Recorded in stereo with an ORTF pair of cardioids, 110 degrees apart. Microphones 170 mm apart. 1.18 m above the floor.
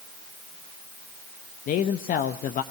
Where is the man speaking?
55° left, 1.0 m.